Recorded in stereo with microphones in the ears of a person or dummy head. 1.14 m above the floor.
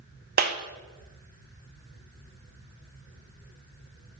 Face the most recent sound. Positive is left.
turn(degrees=-45)  # may be behind; listen again after turning